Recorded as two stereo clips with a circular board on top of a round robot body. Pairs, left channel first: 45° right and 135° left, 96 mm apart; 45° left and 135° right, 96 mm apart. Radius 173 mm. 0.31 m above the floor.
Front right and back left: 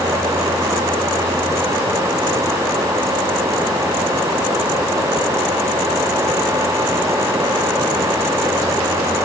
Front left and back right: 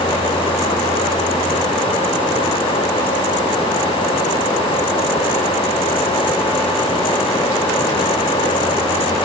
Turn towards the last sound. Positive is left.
No sound to turn to.